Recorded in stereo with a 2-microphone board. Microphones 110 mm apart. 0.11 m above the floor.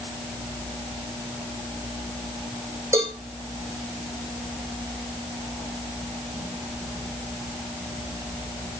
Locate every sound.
2.9 s a cowbell: 25° right (ahead or behind), 4 m